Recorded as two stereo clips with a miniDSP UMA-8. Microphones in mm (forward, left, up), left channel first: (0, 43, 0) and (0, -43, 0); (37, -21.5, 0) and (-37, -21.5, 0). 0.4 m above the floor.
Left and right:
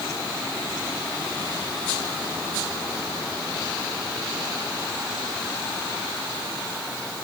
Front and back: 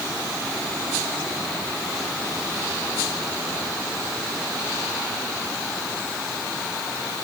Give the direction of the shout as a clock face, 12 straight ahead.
No shout in this recording.